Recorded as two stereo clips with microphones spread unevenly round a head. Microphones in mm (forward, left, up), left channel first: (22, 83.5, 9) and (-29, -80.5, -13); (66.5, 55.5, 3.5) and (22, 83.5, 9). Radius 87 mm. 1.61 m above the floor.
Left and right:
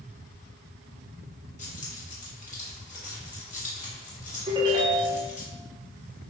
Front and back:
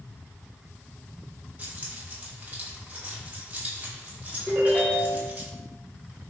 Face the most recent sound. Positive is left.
turn(degrees=-175)